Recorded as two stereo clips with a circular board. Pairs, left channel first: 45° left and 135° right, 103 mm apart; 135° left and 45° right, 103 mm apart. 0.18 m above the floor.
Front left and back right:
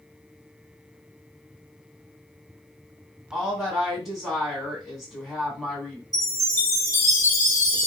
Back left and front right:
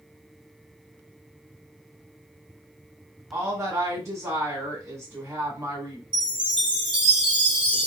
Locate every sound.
3.3 s a woman speaking: 45° right, 1.5 m
6.1 s a chime: 15° right, 1.5 m